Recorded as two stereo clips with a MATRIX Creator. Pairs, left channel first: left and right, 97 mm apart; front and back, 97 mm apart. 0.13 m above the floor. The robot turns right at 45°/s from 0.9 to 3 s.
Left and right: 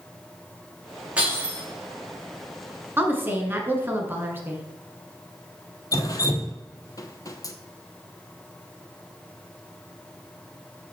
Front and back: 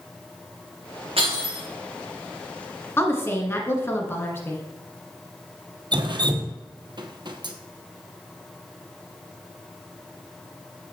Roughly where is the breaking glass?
Behind.